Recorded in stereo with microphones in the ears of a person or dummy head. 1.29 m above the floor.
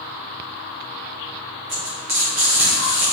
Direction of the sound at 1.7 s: 5° right (ahead or behind).